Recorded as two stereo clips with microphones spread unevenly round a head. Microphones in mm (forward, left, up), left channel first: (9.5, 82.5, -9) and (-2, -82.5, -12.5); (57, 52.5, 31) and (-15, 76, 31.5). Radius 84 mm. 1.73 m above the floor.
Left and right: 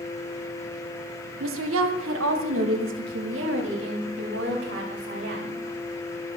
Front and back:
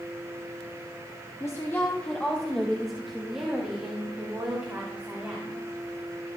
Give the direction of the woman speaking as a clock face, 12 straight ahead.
3 o'clock.